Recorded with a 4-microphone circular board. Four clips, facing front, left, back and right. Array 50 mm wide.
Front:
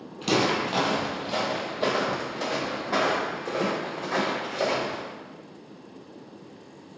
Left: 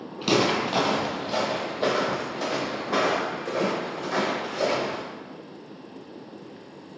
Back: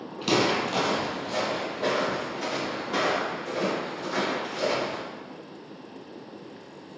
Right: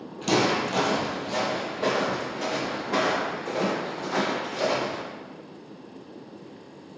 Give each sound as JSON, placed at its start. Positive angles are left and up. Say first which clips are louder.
{"t": 0.2, "sound": "footsteps", "louder": "left 1 dB, even", "azimuth_deg": 110, "distance_m": 1.2}